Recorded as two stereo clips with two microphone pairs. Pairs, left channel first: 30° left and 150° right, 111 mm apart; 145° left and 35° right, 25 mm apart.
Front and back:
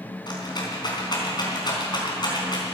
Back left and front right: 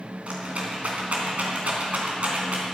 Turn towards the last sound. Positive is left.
turn(degrees=-15)